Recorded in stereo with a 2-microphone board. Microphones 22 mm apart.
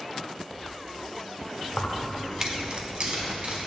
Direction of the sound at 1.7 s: 40° left (ahead or behind).